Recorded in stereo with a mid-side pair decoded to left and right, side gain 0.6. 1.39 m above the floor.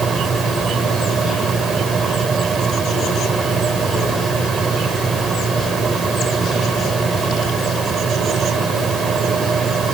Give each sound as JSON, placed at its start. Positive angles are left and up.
{"t": 0.0, "sound": "a fan", "azimuth_deg": -30}